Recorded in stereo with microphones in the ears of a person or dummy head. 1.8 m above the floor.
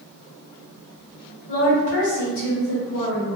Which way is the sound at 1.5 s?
55° left (ahead or behind).